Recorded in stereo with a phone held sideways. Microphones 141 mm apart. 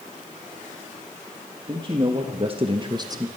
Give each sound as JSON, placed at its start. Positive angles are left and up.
{"t": 1.7, "sound": "a man speaking", "side_deg": -35, "distance_m": 2.0}